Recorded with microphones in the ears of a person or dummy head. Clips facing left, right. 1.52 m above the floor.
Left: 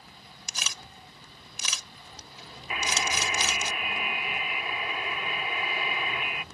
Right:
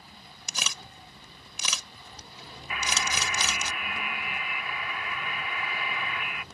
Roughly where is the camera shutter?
Right.